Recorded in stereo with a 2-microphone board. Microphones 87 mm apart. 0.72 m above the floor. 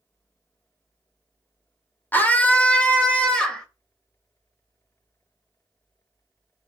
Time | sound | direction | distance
2.1 | a scream | 20° left (ahead or behind) | 2.5 m